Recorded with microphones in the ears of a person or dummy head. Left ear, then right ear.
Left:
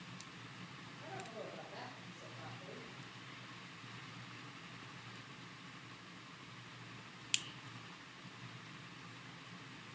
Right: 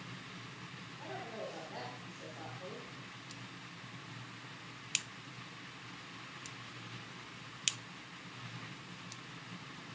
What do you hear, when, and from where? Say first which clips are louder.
1.0 s a woman speaking: right 4 dB; 50° right (ahead or behind), 8 m